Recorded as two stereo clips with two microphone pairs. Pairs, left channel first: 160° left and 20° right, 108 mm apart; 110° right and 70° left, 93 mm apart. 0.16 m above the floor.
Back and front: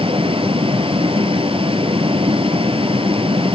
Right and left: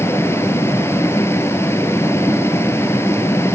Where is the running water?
50° right, 1.7 m.